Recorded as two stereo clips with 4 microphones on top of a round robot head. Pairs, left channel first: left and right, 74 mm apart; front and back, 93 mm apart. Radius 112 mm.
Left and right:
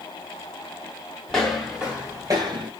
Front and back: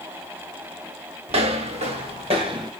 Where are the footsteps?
175° left, 1.4 m; by 2.7 s 125° right, 1.1 m.